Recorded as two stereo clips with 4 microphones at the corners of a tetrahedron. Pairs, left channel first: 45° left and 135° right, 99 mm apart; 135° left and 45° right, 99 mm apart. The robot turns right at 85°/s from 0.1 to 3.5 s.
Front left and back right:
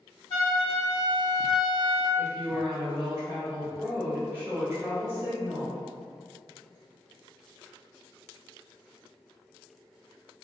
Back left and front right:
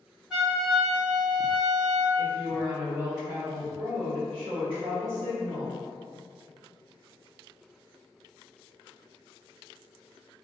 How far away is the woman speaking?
About 1.7 m.